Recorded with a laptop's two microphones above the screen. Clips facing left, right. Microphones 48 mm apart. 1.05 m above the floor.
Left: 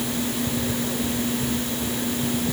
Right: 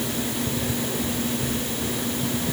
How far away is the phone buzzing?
I don't hear a phone buzzing.